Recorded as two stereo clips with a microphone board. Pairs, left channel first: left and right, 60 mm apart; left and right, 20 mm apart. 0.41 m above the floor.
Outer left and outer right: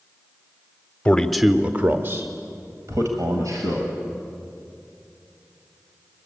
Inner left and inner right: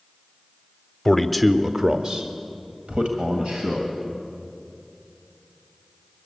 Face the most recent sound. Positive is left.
turn(degrees=-70)  # may be behind; listen again after turning